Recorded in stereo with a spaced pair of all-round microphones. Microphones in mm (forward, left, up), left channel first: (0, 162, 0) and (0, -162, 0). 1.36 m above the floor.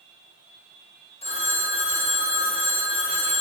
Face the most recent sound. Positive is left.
turn(degrees=20)  # may be behind; listen again after turning